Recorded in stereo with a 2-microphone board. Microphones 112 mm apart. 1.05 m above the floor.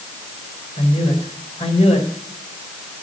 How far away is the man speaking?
About 4.5 m.